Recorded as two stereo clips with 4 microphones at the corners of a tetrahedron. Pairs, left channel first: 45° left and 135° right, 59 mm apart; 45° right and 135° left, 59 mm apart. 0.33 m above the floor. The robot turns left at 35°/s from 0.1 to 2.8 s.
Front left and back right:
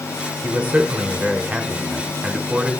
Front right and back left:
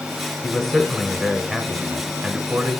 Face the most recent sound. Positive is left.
turn(degrees=155)